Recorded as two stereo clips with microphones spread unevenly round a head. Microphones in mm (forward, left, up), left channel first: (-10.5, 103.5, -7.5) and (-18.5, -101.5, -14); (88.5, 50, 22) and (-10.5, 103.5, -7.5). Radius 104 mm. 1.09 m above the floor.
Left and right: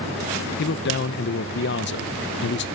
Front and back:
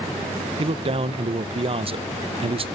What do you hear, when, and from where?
0.6 s a man speaking: 125° left, 0.6 m